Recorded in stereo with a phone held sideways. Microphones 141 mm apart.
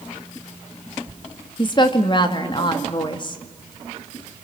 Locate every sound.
1.6 s a woman speaking: 35° left (ahead or behind), 2.0 m